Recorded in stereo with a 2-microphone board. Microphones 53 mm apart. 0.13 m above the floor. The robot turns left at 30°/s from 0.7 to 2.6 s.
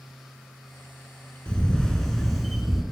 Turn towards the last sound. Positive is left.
turn(degrees=-5)